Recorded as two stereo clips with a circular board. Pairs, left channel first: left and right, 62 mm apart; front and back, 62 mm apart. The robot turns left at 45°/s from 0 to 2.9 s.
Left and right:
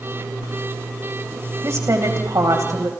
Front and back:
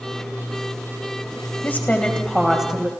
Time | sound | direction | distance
1.6 | a woman speaking | 55° right | 3.5 m